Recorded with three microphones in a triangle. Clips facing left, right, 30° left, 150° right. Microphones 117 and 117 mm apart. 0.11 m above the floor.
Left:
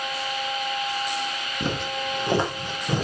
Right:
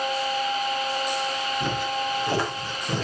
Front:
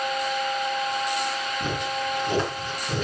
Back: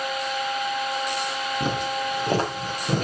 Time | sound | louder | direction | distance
1.6 | footsteps | left 1 dB, back 3 dB | 150° left | 3.5 m